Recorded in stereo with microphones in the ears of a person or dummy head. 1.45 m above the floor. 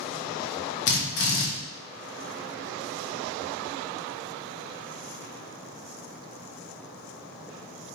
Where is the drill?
60° left (ahead or behind), 0.8 m.